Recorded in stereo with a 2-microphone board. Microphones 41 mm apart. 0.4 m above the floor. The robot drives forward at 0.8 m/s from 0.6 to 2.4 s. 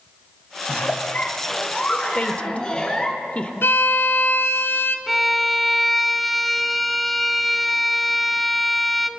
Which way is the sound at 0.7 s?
45° left (ahead or behind).